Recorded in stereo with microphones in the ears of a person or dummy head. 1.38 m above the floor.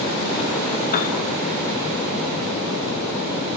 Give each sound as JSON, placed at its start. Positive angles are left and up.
{"t": 0.9, "sound": "a piano", "side_deg": 50, "distance_m": 2.0}